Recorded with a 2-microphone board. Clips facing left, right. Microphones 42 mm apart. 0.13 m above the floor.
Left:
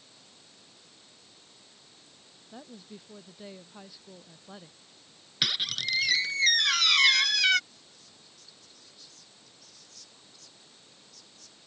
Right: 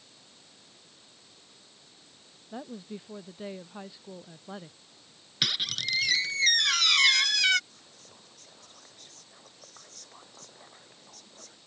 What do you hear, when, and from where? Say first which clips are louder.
2.5 s a woman speaking: right 7 dB; 20° right (ahead or behind); by 4.8 s 15° right (ahead or behind)
5.4 s a squeak: even; 5° left (ahead or behind)
7.7 s whispering: right 2 dB; 50° right (ahead or behind)